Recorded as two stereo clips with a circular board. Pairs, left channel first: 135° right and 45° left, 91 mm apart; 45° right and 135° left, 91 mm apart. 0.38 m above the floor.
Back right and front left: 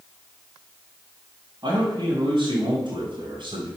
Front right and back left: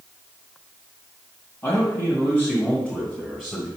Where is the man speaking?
10° left, 2 m; by 3.7 s 45° left, 2 m.